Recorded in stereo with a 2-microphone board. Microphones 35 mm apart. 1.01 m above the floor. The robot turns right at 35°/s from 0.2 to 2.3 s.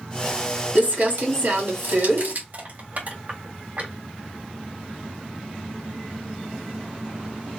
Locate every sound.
0.8 s crumpling: 125° right, 1.8 m; by 2.4 s 70° right, 1.8 m
2.5 s crushing: 55° right (ahead or behind), 2.0 m